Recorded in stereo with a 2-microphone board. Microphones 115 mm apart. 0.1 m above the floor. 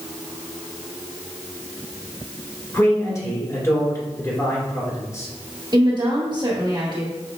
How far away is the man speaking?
About 1.8 m.